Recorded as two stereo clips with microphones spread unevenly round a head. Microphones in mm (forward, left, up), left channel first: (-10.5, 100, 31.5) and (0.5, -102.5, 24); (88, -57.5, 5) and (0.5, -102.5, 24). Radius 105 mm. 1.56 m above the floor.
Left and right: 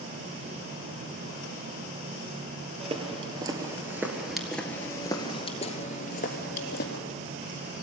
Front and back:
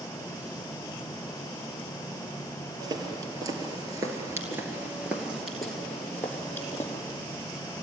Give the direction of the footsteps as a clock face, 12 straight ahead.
5 o'clock.